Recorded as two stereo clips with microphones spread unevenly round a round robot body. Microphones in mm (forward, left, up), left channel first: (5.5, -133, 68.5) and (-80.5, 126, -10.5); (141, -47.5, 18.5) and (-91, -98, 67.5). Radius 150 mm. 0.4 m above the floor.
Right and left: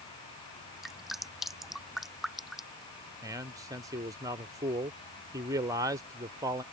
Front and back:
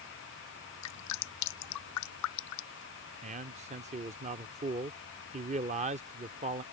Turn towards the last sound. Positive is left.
turn(degrees=135)